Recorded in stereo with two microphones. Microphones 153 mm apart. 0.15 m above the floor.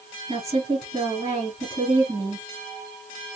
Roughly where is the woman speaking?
Right.